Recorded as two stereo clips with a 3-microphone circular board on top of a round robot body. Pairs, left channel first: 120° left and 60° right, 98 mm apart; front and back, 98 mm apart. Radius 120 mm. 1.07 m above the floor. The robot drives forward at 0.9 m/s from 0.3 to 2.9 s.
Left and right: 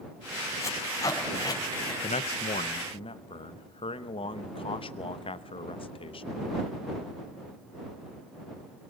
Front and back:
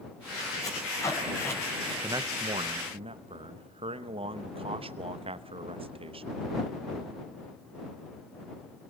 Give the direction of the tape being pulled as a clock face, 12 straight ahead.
10 o'clock.